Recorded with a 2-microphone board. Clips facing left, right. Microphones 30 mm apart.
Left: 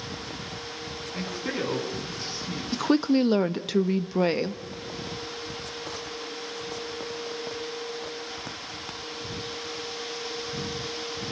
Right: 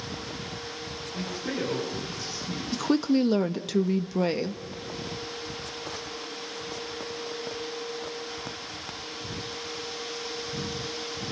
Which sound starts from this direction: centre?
A woman speaking, at 2.7 s.